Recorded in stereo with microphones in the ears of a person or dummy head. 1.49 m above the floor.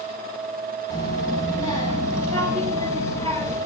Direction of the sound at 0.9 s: 30° right (ahead or behind).